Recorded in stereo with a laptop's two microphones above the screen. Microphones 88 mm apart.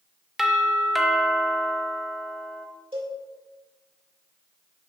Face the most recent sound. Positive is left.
turn(degrees=-85)